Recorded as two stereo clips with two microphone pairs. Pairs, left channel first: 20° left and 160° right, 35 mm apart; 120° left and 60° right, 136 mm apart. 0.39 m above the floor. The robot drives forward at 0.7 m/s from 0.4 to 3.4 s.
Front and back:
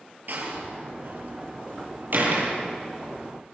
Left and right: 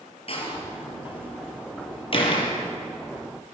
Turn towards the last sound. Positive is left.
turn(degrees=170)